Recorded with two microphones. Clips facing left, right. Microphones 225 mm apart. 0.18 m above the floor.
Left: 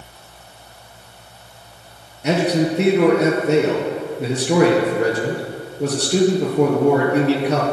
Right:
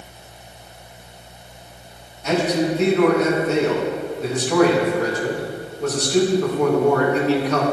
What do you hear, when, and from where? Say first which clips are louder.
2.2 s a man speaking: left 2 dB; 65° left (ahead or behind), 3 m